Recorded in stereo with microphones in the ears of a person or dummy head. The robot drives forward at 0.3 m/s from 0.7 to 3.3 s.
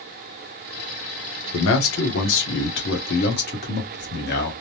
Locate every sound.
1.5 s a man speaking: 70° left (ahead or behind), 0.8 m; by 4.5 s 55° left (ahead or behind), 1.0 m